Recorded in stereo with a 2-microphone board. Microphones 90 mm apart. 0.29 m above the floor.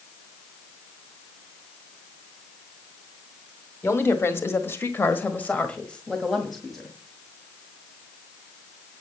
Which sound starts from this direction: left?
A woman speaking, at 3.8 s.